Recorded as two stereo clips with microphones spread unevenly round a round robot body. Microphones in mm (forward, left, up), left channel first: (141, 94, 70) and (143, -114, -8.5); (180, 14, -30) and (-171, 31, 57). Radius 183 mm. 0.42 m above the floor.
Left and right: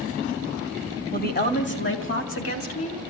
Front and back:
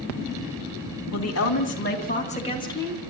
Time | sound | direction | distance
1.1 | a woman speaking | 35° left | 4 m